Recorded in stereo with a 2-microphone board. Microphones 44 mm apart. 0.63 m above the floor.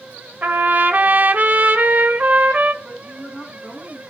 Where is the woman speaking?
10° right (ahead or behind), 5 m.